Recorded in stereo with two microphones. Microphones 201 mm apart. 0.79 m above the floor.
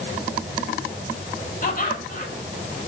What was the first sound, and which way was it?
Laughter, 45° left (ahead or behind).